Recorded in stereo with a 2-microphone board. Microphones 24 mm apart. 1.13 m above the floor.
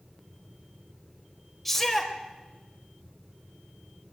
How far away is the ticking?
No ticking in this recording.